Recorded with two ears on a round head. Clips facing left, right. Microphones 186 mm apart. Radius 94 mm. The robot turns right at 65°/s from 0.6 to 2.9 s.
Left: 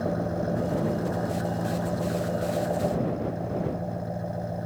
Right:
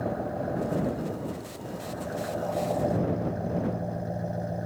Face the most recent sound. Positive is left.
turn(degrees=-175)